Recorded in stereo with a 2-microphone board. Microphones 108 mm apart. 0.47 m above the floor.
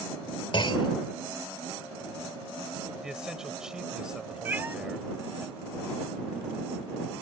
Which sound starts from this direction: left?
A clunk, at 0.5 s.